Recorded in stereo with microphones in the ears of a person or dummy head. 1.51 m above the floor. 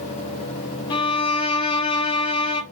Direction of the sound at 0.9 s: 30° left (ahead or behind).